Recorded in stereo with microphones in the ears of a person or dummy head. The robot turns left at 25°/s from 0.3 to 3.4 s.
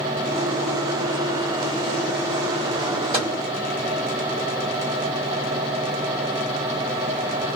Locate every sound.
3.1 s a microwave: 30° right (ahead or behind), 1.9 m; by 3.4 s 35° right (ahead or behind), 1.9 m